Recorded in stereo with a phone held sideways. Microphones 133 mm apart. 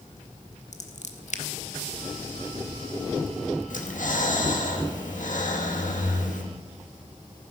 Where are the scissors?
60° left (ahead or behind), 1.2 m.